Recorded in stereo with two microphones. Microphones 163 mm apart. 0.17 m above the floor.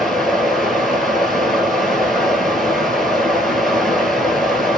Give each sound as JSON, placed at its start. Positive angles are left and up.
{"t": 0.0, "sound": "running water", "side_deg": 0, "distance_m": 0.7}